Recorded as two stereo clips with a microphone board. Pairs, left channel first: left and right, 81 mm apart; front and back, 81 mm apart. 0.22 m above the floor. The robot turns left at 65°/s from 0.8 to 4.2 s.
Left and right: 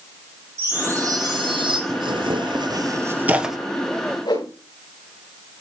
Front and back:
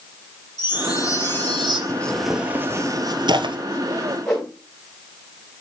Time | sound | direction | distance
0.6 | a chime | 35° right | 5.5 m
1.9 | tearing paper | 70° right | 1.3 m
4.2 | a whoosh | 80° left | 7 m